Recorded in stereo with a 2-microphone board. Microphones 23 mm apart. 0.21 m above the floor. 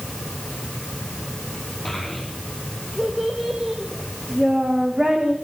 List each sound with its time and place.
1.9 s a child speaking: centre (ahead or behind), 8 m; by 5.3 s 35° right (ahead or behind), 10 m